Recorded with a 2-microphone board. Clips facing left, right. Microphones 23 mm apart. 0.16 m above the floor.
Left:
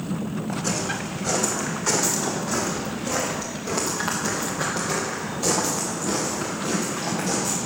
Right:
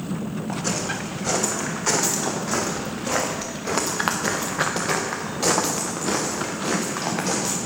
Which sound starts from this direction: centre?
Footsteps, at 0.5 s.